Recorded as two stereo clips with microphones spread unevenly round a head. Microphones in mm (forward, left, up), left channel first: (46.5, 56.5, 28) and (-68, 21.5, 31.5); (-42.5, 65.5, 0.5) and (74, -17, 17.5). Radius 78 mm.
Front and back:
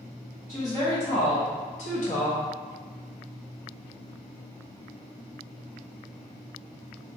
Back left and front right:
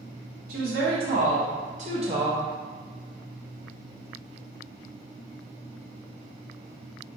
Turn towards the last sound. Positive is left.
turn(degrees=20)